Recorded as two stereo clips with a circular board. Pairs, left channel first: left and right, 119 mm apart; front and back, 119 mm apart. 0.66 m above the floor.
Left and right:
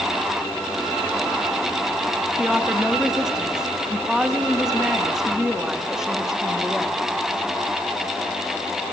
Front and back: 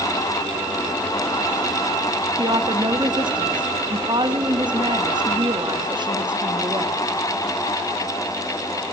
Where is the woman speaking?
175° right, 1.0 m.